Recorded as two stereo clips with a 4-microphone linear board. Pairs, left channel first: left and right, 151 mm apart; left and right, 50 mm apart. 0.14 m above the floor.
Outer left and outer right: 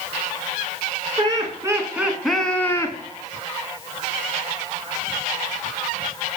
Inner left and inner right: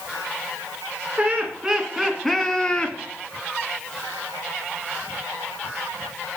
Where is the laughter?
35° right (ahead or behind), 1.8 m; by 3.0 s 25° left (ahead or behind), 1.6 m.